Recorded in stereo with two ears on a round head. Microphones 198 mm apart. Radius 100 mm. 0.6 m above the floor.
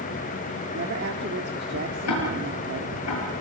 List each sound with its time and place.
0.7 s a woman speaking: 50° right (ahead or behind), 1.4 m
2.1 s ticking: 80° left, 7 m